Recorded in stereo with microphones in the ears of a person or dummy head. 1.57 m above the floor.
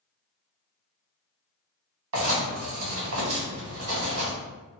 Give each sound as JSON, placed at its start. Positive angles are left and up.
{"t": 2.1, "sound": "writing", "side_deg": -75, "distance_m": 1.4}